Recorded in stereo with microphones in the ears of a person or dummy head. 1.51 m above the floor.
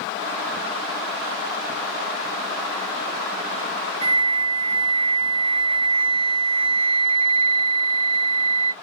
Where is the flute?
30° right (ahead or behind), 1.9 m.